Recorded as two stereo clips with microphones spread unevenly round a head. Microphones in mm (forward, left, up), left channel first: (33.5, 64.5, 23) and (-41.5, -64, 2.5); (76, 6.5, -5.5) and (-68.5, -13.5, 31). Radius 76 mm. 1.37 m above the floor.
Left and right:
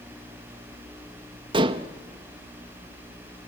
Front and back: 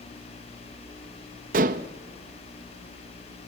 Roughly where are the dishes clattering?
Behind.